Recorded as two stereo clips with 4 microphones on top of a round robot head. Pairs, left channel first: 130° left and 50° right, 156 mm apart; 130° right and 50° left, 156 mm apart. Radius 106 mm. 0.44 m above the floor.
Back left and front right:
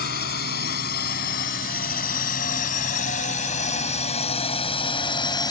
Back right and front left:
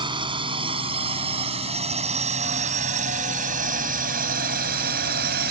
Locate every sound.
0.0 s a drone: 110° left; by 5.5 s 65° left